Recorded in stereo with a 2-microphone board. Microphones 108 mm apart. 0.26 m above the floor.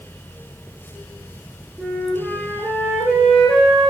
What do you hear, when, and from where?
1.8 s a flute: centre (ahead or behind), 8.5 m